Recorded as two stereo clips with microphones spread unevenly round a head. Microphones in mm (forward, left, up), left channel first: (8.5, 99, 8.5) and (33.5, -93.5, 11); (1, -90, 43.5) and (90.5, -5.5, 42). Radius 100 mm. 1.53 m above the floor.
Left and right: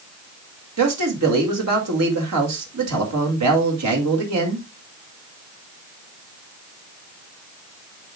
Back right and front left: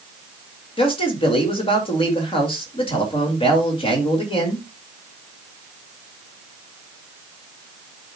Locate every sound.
0.8 s a man speaking: 90° right, 2.5 m